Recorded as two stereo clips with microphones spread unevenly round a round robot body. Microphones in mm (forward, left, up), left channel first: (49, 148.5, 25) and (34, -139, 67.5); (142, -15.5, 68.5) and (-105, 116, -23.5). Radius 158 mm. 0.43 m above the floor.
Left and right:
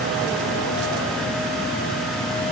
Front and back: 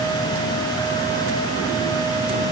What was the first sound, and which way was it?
Only background noise.